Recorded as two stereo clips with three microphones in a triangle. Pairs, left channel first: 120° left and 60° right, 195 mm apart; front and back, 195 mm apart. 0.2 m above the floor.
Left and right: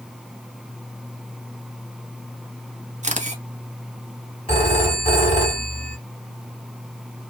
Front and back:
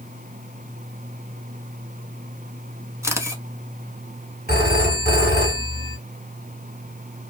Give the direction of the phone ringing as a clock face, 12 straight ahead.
6 o'clock.